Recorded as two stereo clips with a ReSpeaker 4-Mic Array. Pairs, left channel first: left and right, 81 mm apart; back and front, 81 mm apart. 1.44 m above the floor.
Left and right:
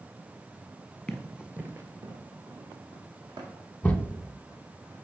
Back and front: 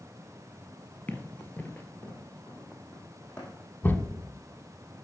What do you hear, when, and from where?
1.1 s running footsteps: 155° left, 1.4 m; by 3.7 s 105° right, 4 m
3.8 s a thud: 150° left, 1.2 m